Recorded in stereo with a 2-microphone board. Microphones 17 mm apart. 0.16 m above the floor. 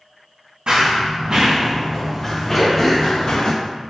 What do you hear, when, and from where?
0.7 s running footsteps: 65° right (ahead or behind), 1.0 m; by 3.5 s 40° left (ahead or behind), 1.0 m
2.5 s throat clearing: centre (ahead or behind), 1.1 m